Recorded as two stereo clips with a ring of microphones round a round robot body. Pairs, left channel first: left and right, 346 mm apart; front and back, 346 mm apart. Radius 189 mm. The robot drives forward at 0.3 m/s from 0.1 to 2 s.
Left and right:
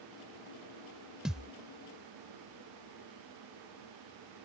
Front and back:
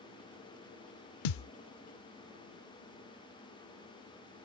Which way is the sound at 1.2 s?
Straight ahead.